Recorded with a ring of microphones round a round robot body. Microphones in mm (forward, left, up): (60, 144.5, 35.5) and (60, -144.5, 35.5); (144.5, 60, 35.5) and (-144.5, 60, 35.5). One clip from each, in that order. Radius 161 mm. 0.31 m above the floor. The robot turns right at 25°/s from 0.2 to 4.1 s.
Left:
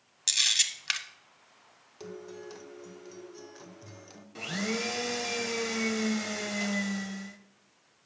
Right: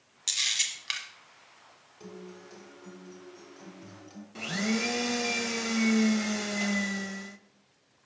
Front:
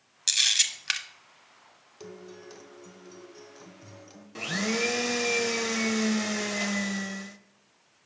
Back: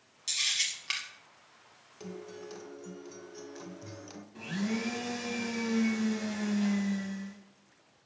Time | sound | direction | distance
0.3 | a camera shutter | 20° left | 1.0 m
2.0 | a guitar | 70° left | 0.9 m
4.3 | a blender | straight ahead | 0.6 m